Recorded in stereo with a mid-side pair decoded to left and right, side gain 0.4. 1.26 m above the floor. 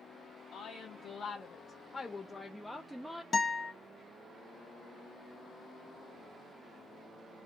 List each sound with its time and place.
0.5 s a woman speaking: 65° left, 1.3 m; by 3.2 s 20° right, 0.8 m
3.3 s a guitar: 35° left, 1.1 m